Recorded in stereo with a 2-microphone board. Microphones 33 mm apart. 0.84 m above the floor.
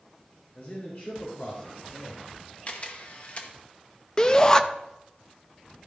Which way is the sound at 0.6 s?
55° left (ahead or behind).